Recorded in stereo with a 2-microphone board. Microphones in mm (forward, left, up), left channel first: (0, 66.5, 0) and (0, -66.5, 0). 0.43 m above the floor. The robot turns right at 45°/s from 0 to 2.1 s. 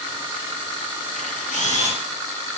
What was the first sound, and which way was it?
A camera shutter, 85° left.